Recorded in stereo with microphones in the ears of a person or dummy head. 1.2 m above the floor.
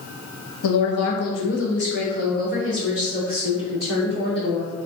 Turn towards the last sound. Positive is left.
turn(degrees=25)  # may be behind; listen again after turning